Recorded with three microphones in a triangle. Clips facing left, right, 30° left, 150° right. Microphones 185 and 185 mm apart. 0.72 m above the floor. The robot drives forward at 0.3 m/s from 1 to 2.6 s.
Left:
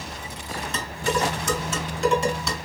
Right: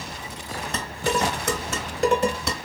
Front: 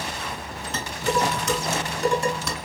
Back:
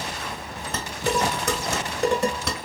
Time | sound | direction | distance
0.7 | dishes clattering | 115° right | 1.6 m